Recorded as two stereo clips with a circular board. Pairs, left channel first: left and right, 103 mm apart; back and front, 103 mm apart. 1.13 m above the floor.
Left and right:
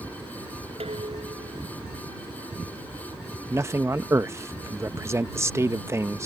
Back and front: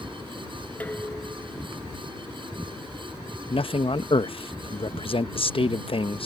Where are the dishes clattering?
105° right.